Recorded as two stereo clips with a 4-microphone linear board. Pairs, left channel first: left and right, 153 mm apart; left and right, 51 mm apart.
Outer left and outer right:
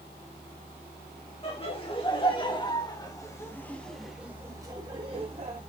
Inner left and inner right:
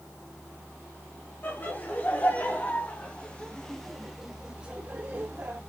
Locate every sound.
1.4 s laughter: 35° left (ahead or behind), 3 m; by 5.6 s 40° right (ahead or behind), 1.5 m